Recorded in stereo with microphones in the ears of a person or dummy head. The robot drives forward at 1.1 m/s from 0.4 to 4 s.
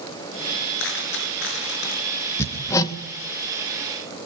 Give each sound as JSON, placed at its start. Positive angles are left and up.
{"t": 0.8, "sound": "a dropped coin", "side_deg": 80, "distance_m": 8.5}
{"t": 2.4, "sound": "hammering", "side_deg": 15, "distance_m": 2.0}